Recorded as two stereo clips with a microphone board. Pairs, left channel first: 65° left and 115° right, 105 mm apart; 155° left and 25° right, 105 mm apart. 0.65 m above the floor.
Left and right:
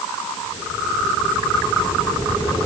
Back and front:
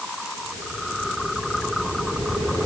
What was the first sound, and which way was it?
Only background noise.